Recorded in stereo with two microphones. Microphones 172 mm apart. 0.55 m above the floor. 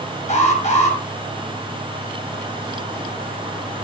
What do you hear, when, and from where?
0.3 s an alarm: 45° left (ahead or behind), 5.5 m